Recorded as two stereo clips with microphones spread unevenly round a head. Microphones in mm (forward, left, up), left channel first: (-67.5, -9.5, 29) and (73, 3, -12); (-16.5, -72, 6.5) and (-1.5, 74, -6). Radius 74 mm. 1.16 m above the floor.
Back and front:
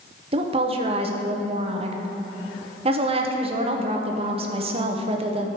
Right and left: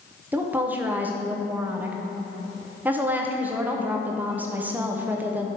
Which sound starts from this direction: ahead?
A woman speaking, at 0.3 s.